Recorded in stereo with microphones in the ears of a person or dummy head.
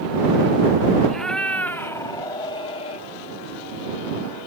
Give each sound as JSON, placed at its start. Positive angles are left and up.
{"t": 1.1, "sound": "a cat meowing", "side_deg": 5}